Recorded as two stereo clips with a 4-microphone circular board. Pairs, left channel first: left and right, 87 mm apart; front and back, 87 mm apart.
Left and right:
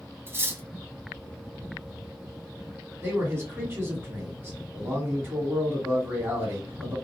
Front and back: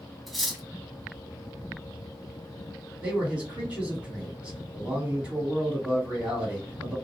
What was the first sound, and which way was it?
Cutlery clinking, 85° right.